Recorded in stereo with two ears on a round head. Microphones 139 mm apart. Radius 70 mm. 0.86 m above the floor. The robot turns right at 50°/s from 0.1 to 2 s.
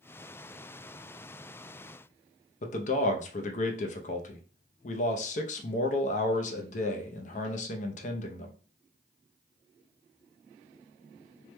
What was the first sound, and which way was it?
A man speaking, 45° left (ahead or behind).